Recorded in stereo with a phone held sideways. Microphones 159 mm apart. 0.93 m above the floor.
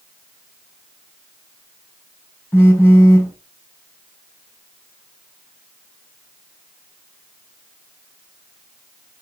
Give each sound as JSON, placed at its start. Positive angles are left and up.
{"t": 2.5, "sound": "a phone buzzing", "side_deg": 15, "distance_m": 4.0}